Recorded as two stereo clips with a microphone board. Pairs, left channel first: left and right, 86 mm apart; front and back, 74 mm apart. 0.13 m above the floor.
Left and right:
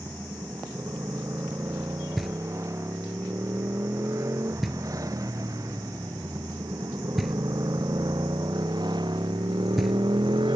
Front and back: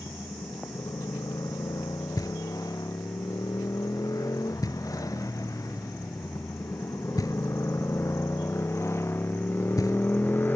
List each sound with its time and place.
0.0 s a motorcycle: 35° right; by 10.6 s 65° right
2.2 s knocking: straight ahead